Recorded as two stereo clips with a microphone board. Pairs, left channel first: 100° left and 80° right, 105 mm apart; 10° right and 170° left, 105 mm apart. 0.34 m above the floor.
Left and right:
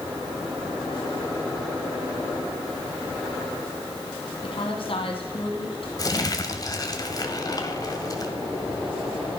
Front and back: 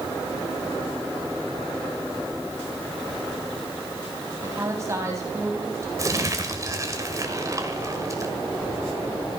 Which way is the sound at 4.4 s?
110° left.